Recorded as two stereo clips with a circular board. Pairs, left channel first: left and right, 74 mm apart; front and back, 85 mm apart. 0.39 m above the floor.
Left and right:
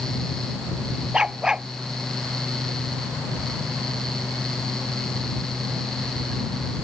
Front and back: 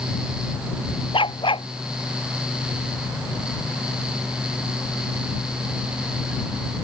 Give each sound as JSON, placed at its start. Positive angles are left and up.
{"t": 1.1, "sound": "a dog barking", "azimuth_deg": -10}